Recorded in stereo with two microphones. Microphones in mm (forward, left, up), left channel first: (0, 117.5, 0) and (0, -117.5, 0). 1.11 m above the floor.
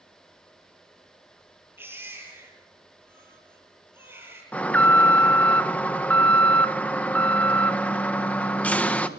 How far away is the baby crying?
About 9 m.